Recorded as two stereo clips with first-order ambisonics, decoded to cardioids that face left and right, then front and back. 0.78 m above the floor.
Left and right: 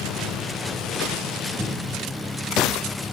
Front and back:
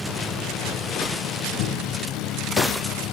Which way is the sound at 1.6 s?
5° right.